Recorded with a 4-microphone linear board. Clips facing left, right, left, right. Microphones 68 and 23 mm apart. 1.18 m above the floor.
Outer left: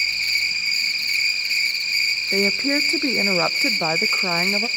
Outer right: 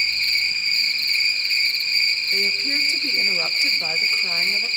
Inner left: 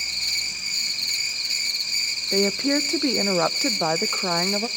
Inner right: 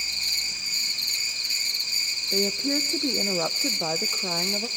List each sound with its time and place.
0.0 s an insect: 10° left (ahead or behind), 3.5 m
2.3 s a woman speaking: 40° left (ahead or behind), 0.6 m